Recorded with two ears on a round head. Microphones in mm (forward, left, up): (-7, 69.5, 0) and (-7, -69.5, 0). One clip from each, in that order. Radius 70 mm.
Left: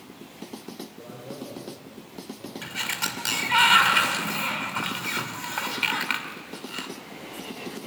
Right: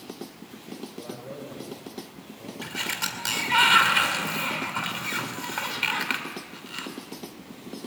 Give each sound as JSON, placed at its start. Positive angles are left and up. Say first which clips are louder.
{"t": 1.0, "sound": "a man speaking", "louder": "right 1 dB", "side_deg": -35, "distance_m": 5.5}
{"t": 2.6, "sound": "a sliding door", "louder": "left 1 dB", "side_deg": 5, "distance_m": 2.5}